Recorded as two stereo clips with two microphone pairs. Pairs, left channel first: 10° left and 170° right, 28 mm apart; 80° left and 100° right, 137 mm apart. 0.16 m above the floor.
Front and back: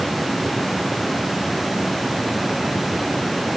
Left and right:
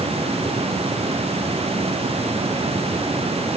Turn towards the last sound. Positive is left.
No sound to turn to.